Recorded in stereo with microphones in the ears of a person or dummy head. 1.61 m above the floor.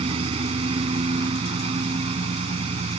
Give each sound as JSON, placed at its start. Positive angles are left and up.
{"t": 0.0, "sound": "a lawn mower", "side_deg": -35}